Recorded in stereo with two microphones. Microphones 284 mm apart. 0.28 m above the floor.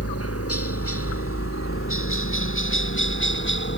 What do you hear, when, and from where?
0.0 s a helicopter: 50° left (ahead or behind); by 3.8 s 40° left (ahead or behind)